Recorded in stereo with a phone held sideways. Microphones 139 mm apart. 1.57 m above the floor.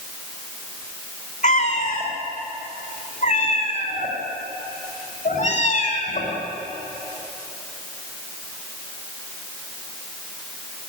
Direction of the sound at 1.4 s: 55° left (ahead or behind).